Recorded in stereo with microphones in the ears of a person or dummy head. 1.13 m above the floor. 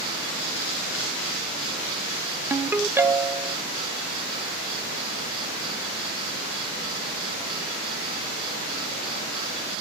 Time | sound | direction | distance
2.5 | a ringtone | 5° right (ahead or behind) | 0.5 m